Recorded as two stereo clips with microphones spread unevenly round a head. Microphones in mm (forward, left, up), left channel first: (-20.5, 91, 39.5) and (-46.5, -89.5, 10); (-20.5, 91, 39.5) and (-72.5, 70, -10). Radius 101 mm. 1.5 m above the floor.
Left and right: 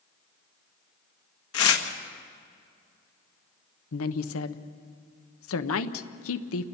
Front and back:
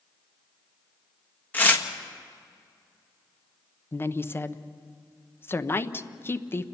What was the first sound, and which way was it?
Tearing paper, 70° left.